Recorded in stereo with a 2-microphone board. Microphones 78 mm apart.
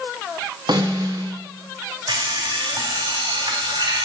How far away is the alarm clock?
About 3.5 m.